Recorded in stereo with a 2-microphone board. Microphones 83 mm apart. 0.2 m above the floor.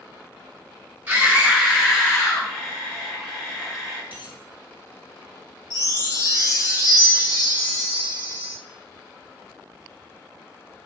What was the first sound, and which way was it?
A scream, 25° right (ahead or behind).